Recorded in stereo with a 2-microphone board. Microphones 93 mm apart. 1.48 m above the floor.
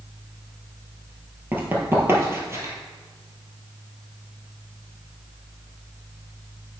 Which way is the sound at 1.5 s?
20° right (ahead or behind).